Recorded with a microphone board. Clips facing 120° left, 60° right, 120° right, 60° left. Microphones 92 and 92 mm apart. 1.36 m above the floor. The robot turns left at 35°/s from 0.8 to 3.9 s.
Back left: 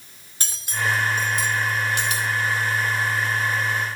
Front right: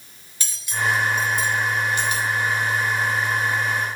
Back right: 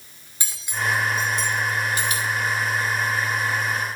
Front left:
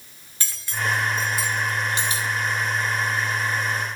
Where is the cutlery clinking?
165° left, 2 m; by 2.3 s 110° left, 2 m.